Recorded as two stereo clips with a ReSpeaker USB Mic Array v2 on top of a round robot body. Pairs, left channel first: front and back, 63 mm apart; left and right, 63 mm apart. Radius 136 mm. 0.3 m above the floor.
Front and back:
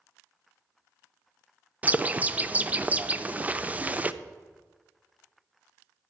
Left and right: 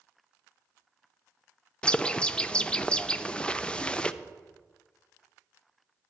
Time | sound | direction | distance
1.8 | a bird | 145° left | 0.6 m